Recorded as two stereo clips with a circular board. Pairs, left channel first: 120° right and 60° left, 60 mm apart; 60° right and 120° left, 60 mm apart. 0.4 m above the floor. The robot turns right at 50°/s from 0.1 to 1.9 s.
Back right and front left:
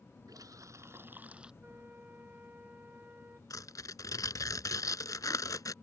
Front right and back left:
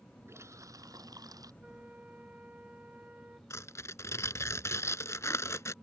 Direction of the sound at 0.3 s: 75° left.